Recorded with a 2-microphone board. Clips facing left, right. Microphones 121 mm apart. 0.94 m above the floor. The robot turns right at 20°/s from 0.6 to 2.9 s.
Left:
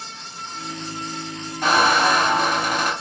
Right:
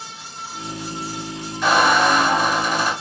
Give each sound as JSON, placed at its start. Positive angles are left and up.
{"t": 1.6, "sound": "a squeak", "side_deg": 50, "distance_m": 1.6}